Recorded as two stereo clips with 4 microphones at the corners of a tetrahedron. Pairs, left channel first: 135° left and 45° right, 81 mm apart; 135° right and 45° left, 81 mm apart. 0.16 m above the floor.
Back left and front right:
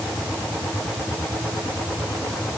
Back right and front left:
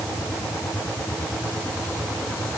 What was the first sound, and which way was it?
Only background noise.